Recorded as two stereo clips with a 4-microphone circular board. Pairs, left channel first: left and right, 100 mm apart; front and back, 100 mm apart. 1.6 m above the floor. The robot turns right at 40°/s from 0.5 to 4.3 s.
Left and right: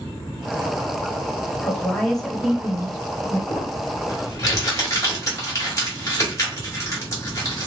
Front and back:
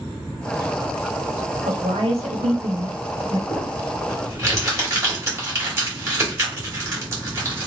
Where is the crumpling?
100° left, 1.6 m; by 7.7 s 130° left, 1.6 m.